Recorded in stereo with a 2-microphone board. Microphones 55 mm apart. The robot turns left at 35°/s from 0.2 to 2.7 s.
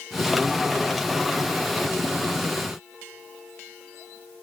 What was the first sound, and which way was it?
Only background noise.